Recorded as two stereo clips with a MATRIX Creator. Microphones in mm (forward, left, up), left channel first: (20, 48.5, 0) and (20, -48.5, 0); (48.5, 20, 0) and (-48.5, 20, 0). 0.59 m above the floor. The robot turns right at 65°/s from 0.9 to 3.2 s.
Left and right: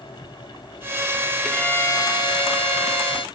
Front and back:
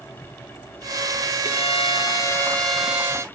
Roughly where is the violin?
Ahead.